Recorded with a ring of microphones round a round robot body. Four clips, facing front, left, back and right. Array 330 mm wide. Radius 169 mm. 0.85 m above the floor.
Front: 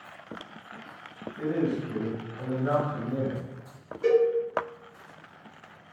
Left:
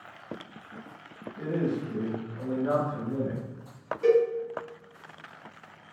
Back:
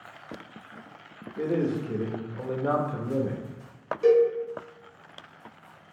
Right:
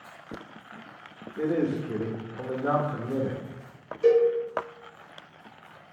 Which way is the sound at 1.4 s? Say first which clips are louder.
Right 3 dB, back 1 dB; 130° right.